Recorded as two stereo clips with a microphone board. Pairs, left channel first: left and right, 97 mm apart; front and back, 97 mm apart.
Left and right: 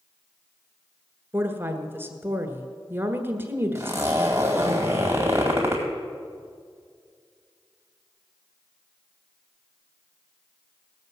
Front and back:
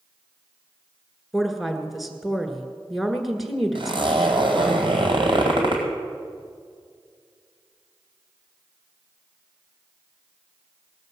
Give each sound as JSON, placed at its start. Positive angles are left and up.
{"t": 1.3, "sound": "a woman speaking", "azimuth_deg": -95, "distance_m": 1.5}
{"t": 3.8, "sound": "a zipper", "azimuth_deg": -155, "distance_m": 2.5}